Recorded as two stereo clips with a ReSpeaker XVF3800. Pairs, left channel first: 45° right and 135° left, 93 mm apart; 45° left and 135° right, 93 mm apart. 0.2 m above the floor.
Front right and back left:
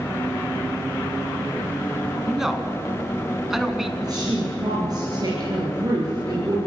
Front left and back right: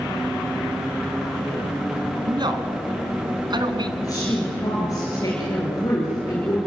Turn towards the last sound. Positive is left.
turn(degrees=95)